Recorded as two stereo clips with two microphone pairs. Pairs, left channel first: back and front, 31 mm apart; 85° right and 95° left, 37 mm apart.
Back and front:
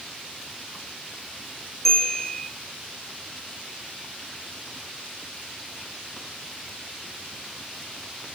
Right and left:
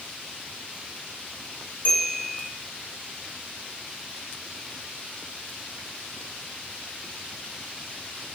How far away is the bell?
About 1.5 m.